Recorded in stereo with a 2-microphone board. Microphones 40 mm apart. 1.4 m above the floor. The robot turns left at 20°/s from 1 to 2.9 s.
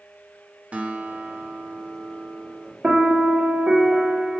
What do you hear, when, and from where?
0.7 s a guitar: 45° right, 0.6 m; by 2.7 s 80° right, 0.6 m
2.8 s a piano: 25° right (ahead or behind), 0.6 m